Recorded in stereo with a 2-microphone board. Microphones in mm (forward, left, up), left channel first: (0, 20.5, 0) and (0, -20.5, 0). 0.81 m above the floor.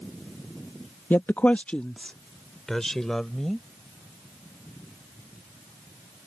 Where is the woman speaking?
55° left (ahead or behind); by 3.7 s 10° left (ahead or behind).